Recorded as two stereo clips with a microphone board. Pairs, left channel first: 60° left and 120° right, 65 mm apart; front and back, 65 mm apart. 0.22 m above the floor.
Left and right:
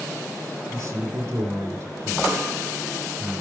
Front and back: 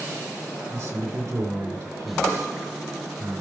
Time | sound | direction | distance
0.7 | a man speaking | 160° right | 3 m